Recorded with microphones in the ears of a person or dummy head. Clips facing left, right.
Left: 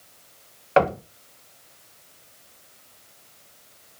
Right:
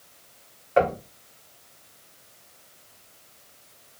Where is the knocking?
85° left, 0.7 m.